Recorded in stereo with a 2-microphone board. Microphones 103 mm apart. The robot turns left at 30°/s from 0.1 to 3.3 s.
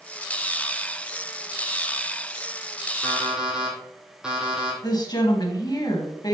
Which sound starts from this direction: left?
A woman speaking, at 4.8 s.